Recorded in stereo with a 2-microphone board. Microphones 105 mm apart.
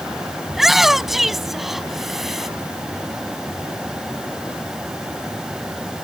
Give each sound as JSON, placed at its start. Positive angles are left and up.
{"t": 0.5, "sound": "a shout", "side_deg": -5}